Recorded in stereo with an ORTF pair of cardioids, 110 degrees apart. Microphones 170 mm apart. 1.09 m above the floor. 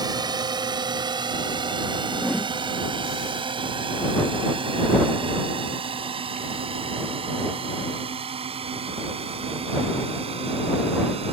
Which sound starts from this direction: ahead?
A whoosh, at 2.1 s.